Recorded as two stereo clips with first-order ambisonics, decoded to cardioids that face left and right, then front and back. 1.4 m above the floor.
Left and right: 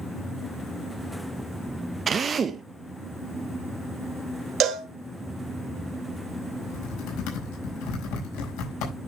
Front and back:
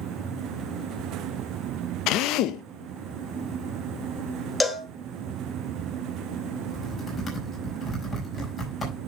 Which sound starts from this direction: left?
Typing on a keyboard, at 6.6 s.